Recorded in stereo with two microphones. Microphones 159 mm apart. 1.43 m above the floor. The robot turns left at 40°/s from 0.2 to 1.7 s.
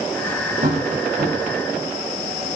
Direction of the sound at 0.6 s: 50° right (ahead or behind).